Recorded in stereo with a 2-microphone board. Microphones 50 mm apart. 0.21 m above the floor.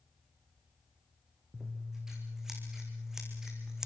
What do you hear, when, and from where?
1.5 s scissors: 10° right (ahead or behind), 6 m